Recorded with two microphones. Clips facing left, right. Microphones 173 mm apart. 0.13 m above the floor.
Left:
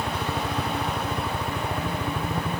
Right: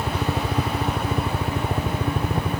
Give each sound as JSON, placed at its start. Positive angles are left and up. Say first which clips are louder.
{"t": 0.0, "sound": "a helicopter", "louder": "right 3 dB", "side_deg": -25}